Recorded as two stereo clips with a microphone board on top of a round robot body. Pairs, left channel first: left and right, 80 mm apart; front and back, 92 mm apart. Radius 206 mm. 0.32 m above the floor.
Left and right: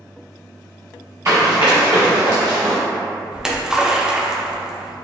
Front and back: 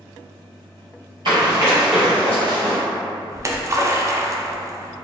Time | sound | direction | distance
1.2 | running footsteps | 145° right | 0.6 m
3.3 | a splash | 165° right | 0.6 m